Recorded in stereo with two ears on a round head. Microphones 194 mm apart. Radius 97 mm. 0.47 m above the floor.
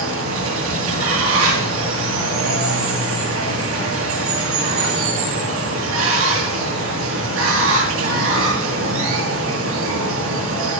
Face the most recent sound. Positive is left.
turn(degrees=-65)  # may be behind; listen again after turning